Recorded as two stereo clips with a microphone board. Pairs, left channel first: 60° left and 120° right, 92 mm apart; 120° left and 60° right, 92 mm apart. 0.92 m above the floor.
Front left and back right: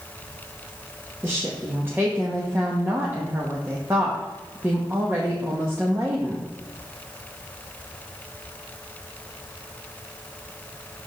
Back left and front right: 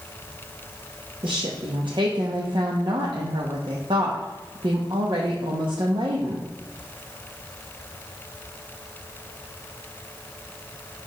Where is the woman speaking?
60° right, 1.0 m.